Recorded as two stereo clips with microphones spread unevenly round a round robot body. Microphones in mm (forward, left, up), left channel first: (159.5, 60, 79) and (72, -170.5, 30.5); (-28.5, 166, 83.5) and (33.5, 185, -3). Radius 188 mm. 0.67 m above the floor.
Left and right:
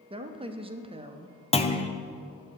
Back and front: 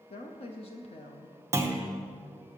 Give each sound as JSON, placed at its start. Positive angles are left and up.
{"t": 0.1, "sound": "a woman speaking", "azimuth_deg": -95, "distance_m": 0.8}
{"t": 1.5, "sound": "a clunk", "azimuth_deg": 0, "distance_m": 1.0}